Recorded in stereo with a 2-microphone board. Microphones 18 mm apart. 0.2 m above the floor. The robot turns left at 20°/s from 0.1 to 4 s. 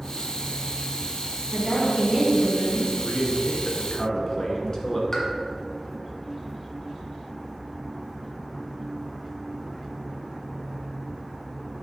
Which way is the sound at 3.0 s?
50° left (ahead or behind).